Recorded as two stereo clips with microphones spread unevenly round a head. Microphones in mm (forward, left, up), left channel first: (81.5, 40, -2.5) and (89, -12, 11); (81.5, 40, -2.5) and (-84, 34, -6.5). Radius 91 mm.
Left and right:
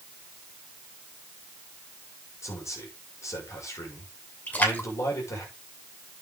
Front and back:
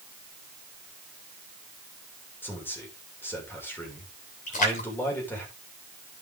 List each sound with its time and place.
2.4 s a man speaking: 80° left, 6.5 m
4.5 s a splash: 45° left, 7.5 m